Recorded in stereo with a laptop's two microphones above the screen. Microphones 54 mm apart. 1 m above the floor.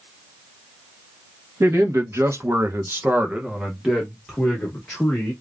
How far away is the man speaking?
About 1.2 m.